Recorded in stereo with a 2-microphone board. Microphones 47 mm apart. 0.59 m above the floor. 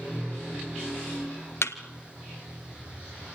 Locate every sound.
1.6 s a thud: 70° left (ahead or behind), 1.3 m